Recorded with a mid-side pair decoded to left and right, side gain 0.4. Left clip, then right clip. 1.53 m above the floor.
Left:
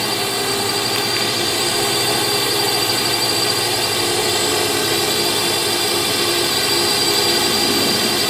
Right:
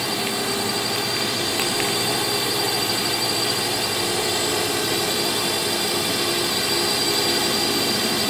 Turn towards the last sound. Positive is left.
turn(degrees=35)